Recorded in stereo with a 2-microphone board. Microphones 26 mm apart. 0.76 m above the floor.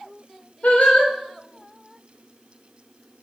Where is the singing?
65° left (ahead or behind), 0.8 m.